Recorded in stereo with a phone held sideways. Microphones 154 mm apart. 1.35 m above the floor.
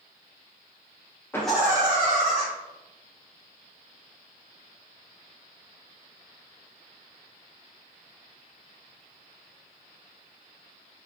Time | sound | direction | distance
1.3 | laughter | 15° left (ahead or behind) | 0.6 m